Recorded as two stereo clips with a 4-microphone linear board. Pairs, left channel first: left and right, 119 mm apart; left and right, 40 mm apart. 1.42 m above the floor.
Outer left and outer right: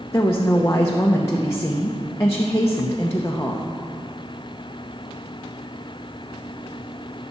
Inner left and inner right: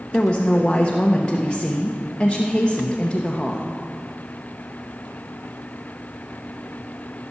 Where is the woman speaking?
20° left (ahead or behind), 0.8 m.